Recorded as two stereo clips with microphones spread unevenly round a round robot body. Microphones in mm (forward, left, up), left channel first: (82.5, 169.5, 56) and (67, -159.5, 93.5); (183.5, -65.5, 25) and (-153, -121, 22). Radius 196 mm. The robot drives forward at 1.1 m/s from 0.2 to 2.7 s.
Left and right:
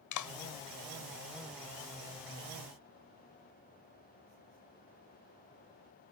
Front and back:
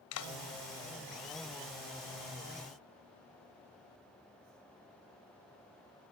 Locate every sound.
0.1 s a clap: 60° left; by 0.3 s 65° left